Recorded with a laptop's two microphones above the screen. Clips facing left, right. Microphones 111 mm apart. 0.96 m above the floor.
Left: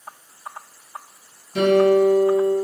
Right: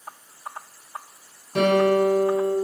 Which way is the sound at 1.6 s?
70° right (ahead or behind).